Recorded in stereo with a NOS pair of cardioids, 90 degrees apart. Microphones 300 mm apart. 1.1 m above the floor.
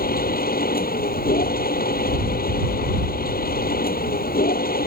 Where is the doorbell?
No doorbell in this recording.